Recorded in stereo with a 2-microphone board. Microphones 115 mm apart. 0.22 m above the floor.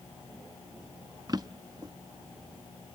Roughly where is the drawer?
Right.